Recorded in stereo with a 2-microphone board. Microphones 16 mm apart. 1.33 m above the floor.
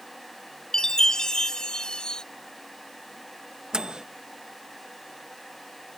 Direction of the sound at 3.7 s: 60° right (ahead or behind).